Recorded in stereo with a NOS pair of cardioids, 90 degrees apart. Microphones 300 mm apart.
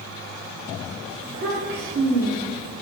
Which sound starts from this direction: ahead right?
A child speaking, at 1.2 s.